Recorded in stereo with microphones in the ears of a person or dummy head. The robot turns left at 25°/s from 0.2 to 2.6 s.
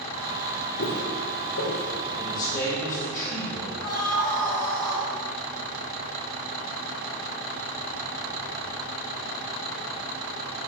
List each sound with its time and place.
0.8 s footsteps: 60° left (ahead or behind), 2.5 m; by 1.9 s 55° left (ahead or behind), 2 m
2.1 s a man speaking: 30° left (ahead or behind), 4.5 m; by 3.7 s 20° left (ahead or behind), 4.5 m
3.8 s a scream: 20° left (ahead or behind), 4 m